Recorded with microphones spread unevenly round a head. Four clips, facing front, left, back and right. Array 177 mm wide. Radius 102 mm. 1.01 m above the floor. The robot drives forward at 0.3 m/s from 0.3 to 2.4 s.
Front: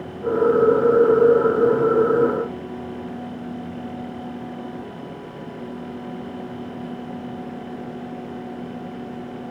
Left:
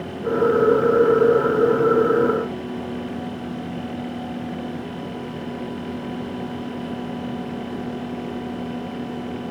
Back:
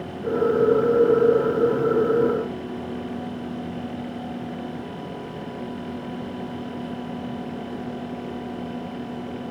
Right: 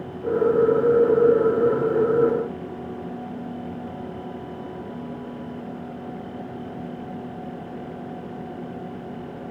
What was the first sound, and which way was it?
Only background noise.